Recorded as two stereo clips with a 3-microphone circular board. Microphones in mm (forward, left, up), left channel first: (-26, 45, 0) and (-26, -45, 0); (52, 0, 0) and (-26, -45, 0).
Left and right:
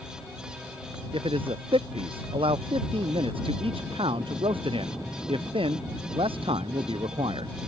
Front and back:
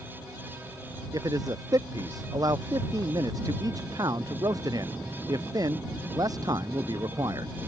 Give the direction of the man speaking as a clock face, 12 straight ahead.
3 o'clock.